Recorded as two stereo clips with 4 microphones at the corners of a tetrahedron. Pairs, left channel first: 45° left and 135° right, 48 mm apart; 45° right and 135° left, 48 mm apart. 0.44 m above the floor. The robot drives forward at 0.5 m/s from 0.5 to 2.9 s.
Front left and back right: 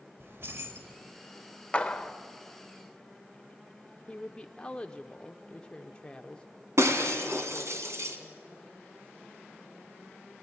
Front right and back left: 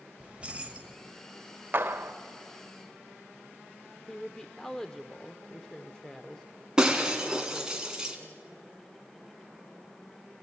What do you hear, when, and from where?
0.2 s keys jangling: 160° right, 1.3 m; by 1.0 s 165° right, 1.5 m
1.7 s a clap: 105° left, 0.9 m; by 2.1 s 120° left, 1.0 m
4.1 s a woman speaking: 15° left, 0.7 m
6.8 s breaking glass: 150° right, 2.0 m